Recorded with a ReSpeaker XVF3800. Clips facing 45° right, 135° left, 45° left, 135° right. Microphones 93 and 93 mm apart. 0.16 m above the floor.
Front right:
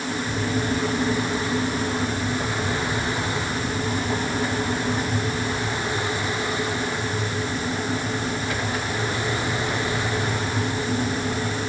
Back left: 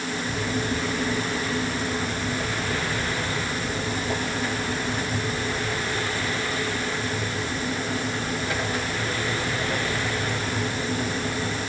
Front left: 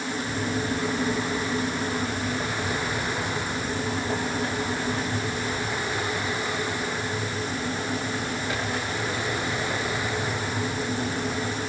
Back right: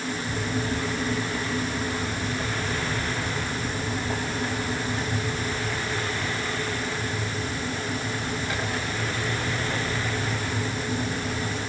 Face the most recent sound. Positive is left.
No sound to turn to.